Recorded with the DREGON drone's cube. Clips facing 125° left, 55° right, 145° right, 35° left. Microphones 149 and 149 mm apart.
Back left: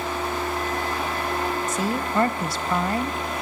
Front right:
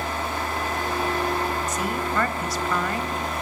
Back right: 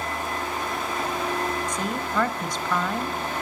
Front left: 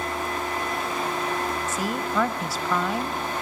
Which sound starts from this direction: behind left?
A woman speaking, at 1.7 s.